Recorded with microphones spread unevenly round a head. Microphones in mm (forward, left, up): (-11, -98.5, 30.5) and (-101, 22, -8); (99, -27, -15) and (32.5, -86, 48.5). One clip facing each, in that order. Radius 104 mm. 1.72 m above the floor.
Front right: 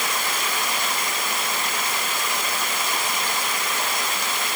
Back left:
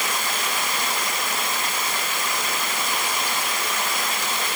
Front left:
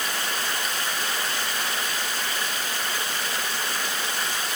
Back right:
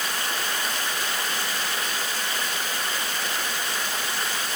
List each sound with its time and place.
Only background noise.